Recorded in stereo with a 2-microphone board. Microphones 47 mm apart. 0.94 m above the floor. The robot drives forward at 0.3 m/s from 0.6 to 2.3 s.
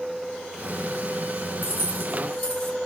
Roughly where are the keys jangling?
Left.